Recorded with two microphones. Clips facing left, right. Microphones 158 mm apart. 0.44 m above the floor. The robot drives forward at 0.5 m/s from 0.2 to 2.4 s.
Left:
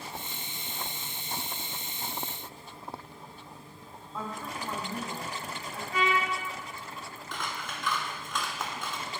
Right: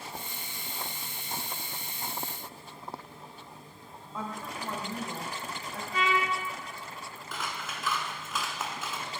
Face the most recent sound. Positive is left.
turn(degrees=-5)  # may be behind; listen again after turning